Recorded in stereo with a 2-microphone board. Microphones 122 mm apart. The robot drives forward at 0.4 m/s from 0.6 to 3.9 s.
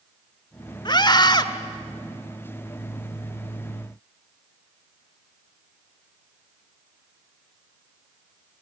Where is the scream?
40° left (ahead or behind), 1.3 m.